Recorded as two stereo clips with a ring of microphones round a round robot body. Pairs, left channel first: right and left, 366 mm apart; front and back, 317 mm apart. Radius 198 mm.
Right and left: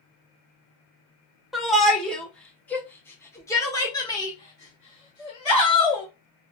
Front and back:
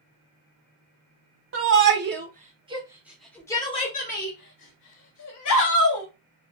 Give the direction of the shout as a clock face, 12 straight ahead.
6 o'clock.